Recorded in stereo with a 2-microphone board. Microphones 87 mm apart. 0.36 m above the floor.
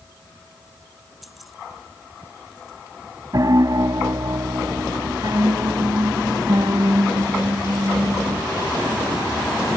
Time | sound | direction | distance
1.2 | keys jangling | centre (ahead or behind) | ?
3.3 | a piano | 50° right (ahead or behind) | ?